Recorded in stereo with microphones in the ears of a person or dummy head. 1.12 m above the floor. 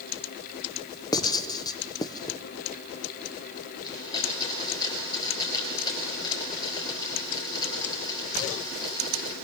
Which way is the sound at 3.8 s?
30° left (ahead or behind).